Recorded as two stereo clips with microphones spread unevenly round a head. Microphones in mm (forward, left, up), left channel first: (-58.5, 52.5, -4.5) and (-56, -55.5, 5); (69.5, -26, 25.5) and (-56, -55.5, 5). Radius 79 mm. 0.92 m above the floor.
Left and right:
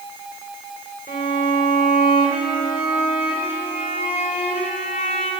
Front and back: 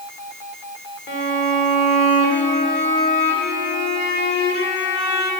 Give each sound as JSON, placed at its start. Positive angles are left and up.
{"t": 1.1, "sound": "a violin", "azimuth_deg": 40, "distance_m": 2.5}